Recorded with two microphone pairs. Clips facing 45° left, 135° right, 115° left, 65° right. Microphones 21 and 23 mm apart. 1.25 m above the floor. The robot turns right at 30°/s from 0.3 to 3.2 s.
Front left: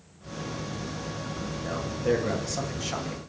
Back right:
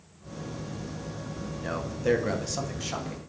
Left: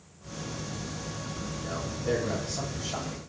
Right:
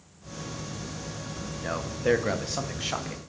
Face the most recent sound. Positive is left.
turn(degrees=-35)